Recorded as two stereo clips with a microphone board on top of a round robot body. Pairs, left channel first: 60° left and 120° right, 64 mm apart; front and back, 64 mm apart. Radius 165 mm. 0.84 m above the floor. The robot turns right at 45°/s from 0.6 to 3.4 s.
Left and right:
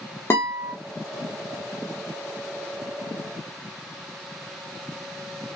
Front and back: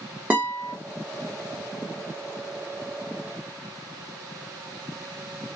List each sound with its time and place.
0.3 s a guitar: 110° left, 0.6 m; by 0.7 s 115° left, 0.6 m